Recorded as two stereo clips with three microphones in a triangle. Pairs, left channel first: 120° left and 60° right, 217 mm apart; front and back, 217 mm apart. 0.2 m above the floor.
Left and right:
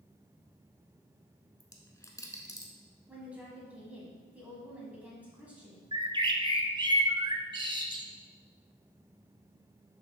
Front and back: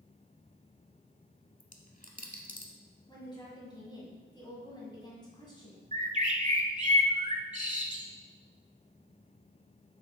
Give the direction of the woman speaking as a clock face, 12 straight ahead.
12 o'clock.